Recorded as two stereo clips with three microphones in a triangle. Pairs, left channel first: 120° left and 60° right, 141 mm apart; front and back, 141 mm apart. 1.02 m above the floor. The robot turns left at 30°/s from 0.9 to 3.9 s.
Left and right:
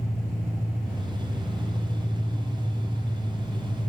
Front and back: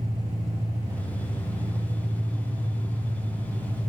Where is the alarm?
I don't hear an alarm.